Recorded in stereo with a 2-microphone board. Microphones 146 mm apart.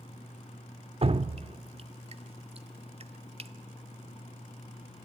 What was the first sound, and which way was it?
Dripping, 45° right (ahead or behind).